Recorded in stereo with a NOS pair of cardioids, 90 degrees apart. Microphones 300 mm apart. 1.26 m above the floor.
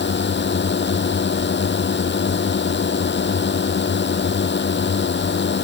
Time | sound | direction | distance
0.0 | a drone | 35° left | ?